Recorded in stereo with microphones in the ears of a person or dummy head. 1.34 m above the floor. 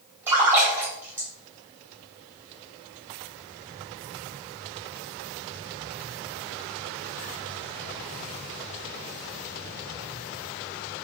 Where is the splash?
10° right (ahead or behind), 2 m.